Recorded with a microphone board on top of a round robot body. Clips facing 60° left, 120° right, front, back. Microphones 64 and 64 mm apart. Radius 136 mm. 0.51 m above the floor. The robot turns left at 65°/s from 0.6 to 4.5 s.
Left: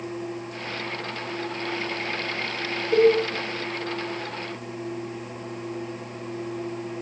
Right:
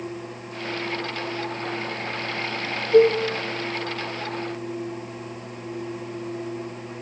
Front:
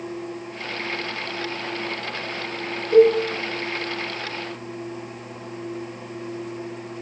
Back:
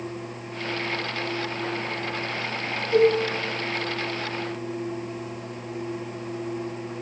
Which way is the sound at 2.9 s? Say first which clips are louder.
Right 2 dB, front 5 dB; 60° left.